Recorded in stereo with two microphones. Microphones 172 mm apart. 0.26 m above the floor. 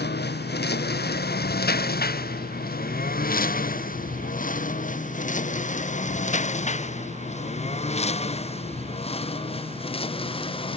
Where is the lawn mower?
75° left (ahead or behind); by 10.8 s 30° left (ahead or behind).